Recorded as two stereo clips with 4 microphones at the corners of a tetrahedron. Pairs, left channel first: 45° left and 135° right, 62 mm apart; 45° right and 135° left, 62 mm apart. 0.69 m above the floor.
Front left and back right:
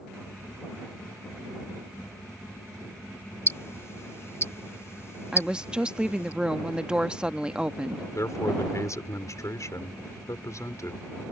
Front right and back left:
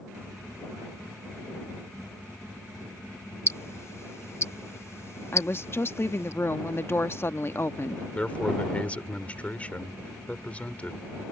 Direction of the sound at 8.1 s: 20° left.